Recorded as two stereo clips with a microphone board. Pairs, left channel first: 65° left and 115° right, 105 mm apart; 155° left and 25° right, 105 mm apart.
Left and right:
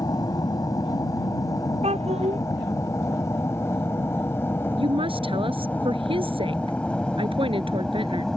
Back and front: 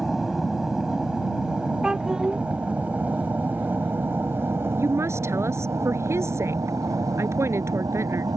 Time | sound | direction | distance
0.0 | an aircraft | 65° left | ?
1.8 | a child speaking | 105° right | ?
4.8 | a woman speaking | 85° right | ?